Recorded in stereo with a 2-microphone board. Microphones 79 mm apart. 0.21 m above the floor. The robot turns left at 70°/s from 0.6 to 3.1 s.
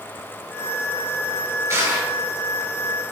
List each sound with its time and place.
1.7 s crushing: 40° right (ahead or behind), 4 m; by 2.1 s 10° right (ahead or behind), 4 m